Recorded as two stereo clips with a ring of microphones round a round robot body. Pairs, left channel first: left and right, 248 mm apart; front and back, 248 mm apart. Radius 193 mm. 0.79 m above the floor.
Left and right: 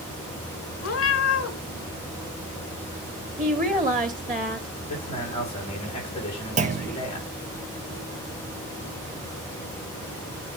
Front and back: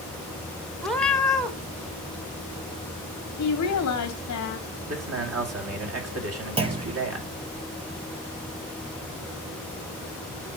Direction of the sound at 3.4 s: 30° right.